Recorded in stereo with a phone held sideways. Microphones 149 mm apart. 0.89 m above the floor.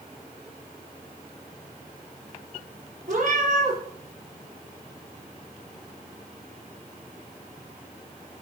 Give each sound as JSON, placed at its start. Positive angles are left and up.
{"t": 3.1, "sound": "a cat meowing", "side_deg": -55, "distance_m": 5.0}